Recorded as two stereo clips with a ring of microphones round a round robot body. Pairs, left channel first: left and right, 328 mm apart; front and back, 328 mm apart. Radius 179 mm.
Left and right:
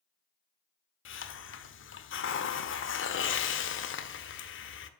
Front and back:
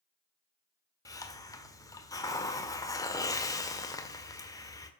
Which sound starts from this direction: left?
A hiss, at 1.1 s.